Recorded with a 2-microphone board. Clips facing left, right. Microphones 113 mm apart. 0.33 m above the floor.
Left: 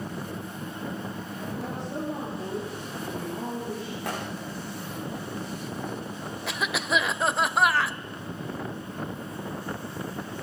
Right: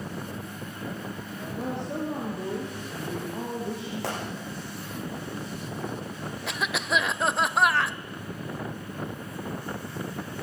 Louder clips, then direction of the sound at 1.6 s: Right 4 dB; 75° right (ahead or behind).